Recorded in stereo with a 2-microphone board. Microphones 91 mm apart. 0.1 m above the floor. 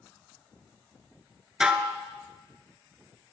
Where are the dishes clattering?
10° right (ahead or behind), 0.8 m.